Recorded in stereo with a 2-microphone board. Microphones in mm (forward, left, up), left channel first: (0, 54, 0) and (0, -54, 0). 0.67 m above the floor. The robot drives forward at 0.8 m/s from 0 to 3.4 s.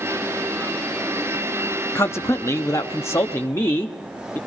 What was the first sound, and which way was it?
A man speaking, 25° left (ahead or behind).